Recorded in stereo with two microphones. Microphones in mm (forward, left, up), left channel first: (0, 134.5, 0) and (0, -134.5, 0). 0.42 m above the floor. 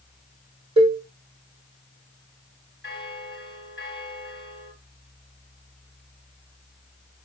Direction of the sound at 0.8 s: 20° right (ahead or behind).